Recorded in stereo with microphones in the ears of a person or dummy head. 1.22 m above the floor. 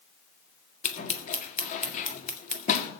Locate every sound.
0.8 s scissors: 40° left (ahead or behind), 1.7 m